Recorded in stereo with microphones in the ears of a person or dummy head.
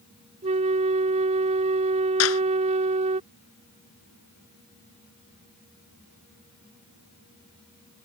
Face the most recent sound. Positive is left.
turn(degrees=90)